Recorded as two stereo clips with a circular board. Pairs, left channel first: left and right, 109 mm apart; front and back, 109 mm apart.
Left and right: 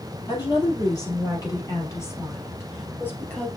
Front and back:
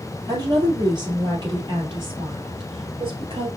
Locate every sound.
0.3 s a woman speaking: 135° left, 3 m; by 3.5 s 165° left, 2 m